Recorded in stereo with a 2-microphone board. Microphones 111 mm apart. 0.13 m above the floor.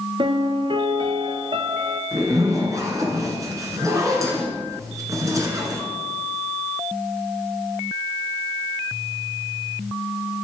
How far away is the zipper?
About 1.8 m.